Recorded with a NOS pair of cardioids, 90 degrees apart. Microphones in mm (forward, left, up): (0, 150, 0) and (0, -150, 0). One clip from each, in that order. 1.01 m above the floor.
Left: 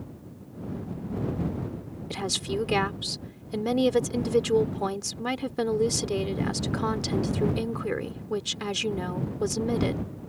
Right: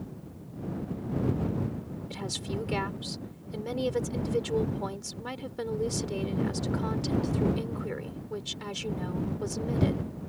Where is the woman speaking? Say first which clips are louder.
Left 7 dB; 50° left.